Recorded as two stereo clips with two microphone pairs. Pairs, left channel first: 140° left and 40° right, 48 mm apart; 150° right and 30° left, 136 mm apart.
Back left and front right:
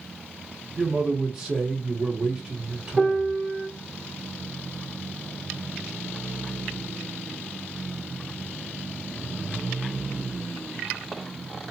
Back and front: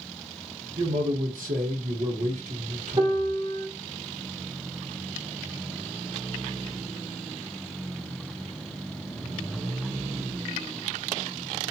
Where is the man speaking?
35° left, 0.9 m.